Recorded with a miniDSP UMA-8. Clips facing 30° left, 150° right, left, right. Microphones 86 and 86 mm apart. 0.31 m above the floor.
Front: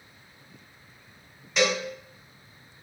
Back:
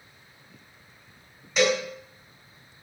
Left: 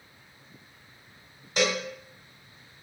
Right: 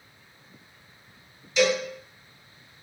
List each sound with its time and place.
1.6 s a cowbell: 120° left, 1.0 m